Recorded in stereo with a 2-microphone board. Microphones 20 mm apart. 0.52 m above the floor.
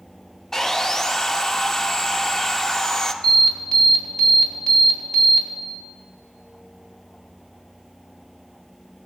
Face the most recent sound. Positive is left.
turn(degrees=45)  # may be behind; listen again after turning